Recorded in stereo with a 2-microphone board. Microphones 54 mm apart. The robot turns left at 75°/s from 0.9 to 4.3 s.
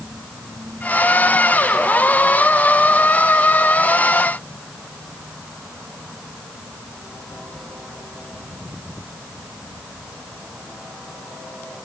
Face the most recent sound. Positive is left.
No sound to turn to.